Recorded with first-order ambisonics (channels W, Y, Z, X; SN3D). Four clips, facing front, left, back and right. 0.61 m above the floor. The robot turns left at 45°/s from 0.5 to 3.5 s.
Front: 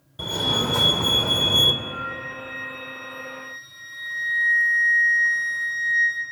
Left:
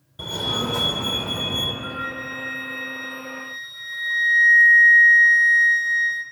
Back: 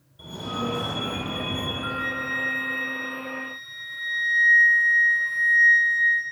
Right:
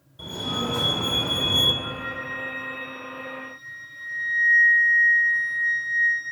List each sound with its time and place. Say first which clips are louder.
0.2 s a fire alarm: left 3 dB, front 8 dB; 35° left, 3 m; by 1.7 s 20° right, 3 m
1.8 s a flute: left 2 dB, back 3 dB; 155° left, 5 m; by 6.2 s 80° left, 5 m